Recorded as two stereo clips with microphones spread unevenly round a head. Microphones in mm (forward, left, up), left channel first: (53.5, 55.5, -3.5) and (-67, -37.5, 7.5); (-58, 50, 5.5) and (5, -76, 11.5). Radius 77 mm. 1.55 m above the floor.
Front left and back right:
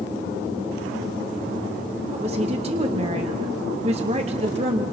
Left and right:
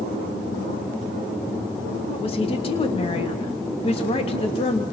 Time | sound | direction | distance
2.1 | a woman speaking | 165° left | 3 m